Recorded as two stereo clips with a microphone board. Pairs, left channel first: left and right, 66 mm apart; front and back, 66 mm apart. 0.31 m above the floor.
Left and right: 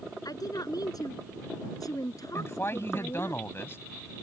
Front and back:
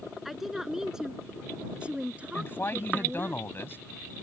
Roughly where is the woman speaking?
Left.